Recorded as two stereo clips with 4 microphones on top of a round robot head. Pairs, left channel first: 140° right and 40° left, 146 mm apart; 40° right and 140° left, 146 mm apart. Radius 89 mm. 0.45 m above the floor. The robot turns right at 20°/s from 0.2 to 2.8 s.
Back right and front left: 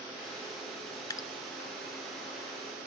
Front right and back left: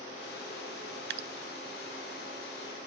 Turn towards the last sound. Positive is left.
turn(degrees=-175)